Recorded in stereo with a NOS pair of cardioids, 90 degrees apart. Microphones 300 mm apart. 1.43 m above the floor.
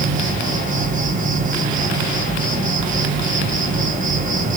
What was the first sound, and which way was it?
An insect, 25° right.